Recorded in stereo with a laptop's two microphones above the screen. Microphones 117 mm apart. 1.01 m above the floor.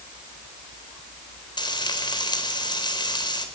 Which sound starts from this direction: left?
Frying, at 1.6 s.